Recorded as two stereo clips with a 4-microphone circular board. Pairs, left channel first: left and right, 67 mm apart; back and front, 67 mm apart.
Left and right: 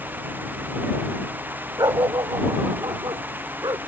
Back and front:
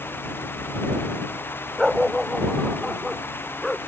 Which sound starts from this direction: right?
A dog barking, at 1.8 s.